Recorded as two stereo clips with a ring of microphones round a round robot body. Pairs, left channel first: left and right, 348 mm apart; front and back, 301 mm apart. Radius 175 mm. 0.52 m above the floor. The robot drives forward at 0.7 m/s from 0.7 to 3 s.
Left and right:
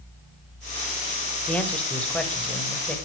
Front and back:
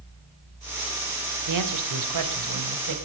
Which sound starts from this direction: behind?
A man speaking, at 1.5 s.